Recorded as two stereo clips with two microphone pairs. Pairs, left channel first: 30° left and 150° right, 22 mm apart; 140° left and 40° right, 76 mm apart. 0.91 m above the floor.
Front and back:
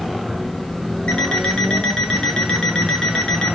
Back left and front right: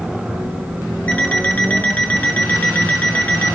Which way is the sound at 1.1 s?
70° left.